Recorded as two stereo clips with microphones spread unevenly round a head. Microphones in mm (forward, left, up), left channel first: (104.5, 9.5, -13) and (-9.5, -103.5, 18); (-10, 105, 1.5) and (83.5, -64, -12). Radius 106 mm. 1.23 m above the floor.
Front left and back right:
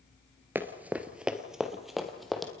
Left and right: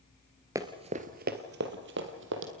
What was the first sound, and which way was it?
Running footsteps, 125° right.